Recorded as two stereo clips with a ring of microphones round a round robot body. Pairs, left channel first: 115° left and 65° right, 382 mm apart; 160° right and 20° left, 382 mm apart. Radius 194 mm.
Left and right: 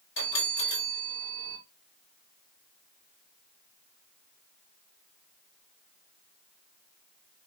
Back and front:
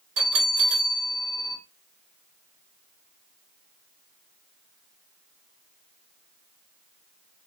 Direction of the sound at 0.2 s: 65° left.